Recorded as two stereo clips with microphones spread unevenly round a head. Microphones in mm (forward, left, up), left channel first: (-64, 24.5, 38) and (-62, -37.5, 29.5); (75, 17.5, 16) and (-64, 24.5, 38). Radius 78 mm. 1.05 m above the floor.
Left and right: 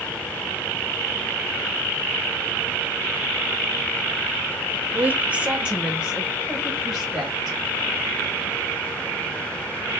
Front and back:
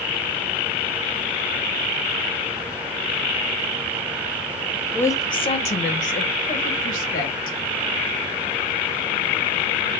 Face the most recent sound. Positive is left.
turn(degrees=0)